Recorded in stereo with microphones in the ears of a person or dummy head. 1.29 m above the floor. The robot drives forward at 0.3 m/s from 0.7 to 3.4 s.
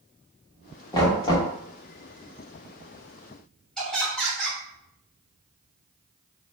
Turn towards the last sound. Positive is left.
turn(degrees=5)  # may be behind; listen again after turning